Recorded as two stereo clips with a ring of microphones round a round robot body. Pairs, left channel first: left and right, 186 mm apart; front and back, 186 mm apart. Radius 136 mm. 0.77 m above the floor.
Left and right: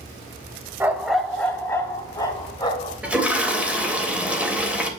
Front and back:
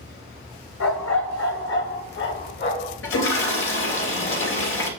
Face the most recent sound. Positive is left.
turn(degrees=-5)